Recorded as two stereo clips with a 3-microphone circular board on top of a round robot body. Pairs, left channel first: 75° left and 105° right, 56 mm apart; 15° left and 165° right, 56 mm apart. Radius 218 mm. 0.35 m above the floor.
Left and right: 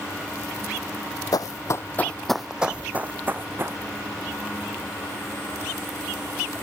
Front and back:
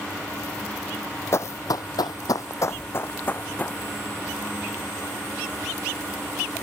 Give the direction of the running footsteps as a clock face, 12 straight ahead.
10 o'clock.